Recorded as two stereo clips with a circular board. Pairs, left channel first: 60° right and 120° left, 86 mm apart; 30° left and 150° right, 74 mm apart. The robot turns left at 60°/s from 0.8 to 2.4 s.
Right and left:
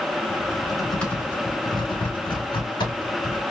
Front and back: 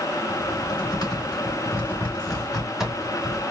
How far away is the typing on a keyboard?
About 3 m.